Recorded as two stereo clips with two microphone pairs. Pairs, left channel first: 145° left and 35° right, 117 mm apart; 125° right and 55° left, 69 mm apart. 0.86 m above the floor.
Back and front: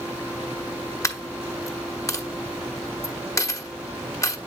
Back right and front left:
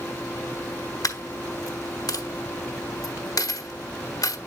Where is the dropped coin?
150° right, 1.0 m.